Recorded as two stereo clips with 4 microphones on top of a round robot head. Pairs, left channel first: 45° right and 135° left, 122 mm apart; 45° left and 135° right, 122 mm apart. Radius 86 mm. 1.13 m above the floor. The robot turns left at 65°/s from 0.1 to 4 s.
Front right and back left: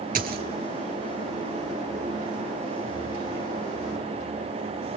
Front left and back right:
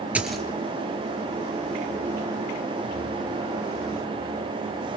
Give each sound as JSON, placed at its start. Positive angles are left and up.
{"t": 0.1, "sound": "a dropped coin", "azimuth_deg": 145, "distance_m": 2.5}